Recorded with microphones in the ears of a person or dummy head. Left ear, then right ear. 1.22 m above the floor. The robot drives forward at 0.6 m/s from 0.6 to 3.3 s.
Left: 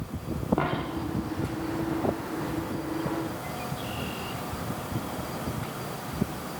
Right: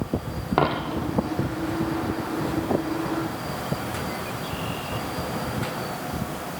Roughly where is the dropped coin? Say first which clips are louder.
Right 11 dB; right.